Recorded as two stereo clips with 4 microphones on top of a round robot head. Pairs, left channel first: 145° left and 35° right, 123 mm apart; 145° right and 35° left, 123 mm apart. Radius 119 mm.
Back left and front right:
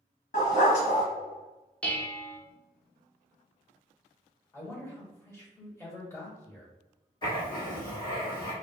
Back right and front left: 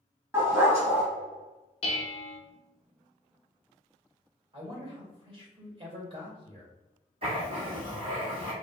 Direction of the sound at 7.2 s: 85° left.